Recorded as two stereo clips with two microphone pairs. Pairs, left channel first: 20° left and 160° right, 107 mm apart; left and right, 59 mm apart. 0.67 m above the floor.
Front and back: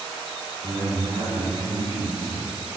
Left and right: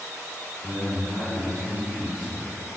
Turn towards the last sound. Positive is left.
turn(degrees=-170)